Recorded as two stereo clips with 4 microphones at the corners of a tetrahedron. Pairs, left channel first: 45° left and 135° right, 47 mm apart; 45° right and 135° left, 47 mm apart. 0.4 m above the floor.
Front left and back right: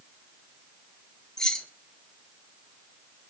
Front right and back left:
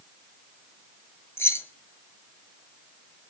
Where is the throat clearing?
No throat clearing in this recording.